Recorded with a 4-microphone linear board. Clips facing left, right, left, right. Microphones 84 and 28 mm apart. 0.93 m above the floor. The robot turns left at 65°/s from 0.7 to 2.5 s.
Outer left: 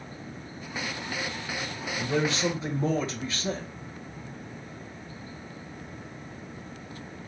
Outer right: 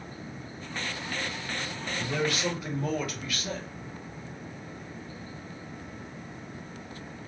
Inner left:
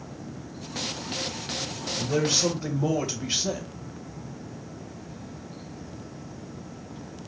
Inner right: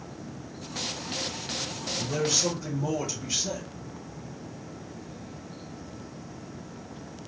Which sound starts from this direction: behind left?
A man speaking, at 2.0 s.